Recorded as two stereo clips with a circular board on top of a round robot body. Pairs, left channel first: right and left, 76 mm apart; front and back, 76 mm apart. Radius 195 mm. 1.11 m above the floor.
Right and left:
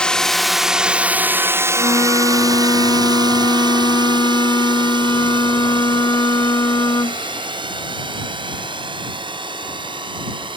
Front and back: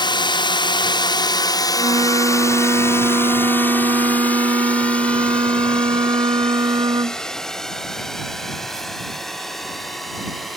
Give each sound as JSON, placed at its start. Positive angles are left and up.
{"t": 0.0, "sound": "a drone", "azimuth_deg": -10}
{"t": 1.7, "sound": "a flute", "azimuth_deg": -140}